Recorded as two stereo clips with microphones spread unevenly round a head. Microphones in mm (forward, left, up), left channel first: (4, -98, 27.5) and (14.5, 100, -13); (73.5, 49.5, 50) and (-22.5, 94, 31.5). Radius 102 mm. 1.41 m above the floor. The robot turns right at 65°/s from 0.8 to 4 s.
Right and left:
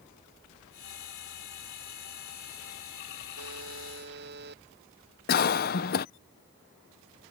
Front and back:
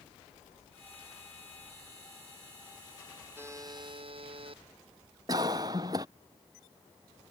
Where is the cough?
140° right.